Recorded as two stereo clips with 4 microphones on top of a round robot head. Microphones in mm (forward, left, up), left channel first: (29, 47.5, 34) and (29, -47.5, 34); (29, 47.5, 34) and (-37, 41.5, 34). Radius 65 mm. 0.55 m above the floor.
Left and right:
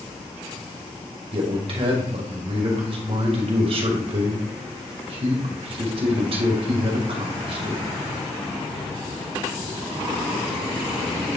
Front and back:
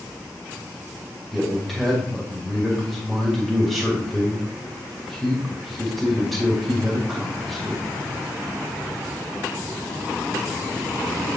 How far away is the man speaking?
About 2.5 m.